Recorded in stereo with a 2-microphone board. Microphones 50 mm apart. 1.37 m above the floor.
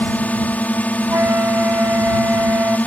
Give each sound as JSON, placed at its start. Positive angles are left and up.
{"t": 0.0, "sound": "a drone", "side_deg": 30}
{"t": 1.1, "sound": "a flute", "side_deg": -50}